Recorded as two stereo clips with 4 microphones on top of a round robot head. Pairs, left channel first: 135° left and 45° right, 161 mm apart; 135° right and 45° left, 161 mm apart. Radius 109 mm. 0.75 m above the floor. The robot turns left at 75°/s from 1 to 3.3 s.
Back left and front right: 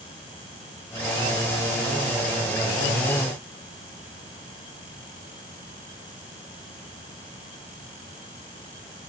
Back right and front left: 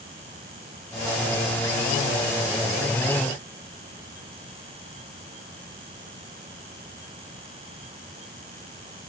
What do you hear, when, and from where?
Only background noise.